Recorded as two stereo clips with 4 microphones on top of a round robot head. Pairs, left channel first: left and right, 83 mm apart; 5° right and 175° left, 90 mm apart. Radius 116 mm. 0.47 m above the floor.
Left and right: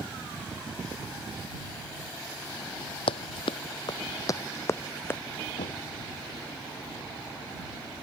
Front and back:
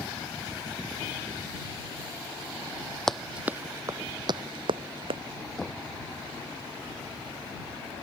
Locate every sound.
3.1 s running footsteps: 80° left; by 5.2 s 155° left
5.6 s knocking: 80° left